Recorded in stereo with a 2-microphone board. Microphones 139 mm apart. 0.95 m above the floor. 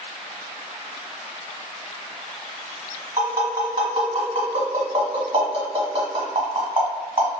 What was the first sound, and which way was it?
Tapping, 45° right (ahead or behind).